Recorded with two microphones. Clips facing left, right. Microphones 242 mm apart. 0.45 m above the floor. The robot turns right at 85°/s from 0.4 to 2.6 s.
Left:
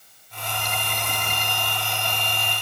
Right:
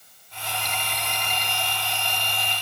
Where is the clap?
No clap in this recording.